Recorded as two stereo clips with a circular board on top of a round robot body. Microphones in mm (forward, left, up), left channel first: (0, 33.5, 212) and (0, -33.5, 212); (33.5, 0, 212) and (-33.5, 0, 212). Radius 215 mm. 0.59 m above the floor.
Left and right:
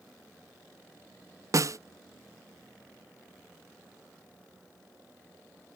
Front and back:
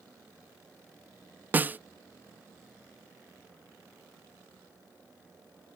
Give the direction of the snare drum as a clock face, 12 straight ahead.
4 o'clock.